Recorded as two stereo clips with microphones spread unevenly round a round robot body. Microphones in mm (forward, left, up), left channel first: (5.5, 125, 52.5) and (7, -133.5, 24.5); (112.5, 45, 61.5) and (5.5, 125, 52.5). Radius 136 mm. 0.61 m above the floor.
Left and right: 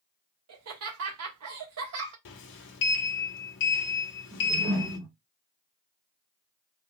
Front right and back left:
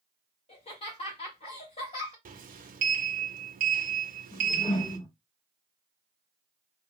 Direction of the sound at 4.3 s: 60° right.